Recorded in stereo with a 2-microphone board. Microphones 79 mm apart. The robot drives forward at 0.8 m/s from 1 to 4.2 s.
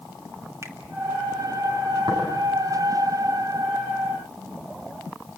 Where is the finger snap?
40° right (ahead or behind), 2.5 m.